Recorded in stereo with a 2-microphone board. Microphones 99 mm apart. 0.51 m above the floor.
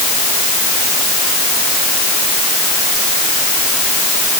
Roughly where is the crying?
I don't hear crying.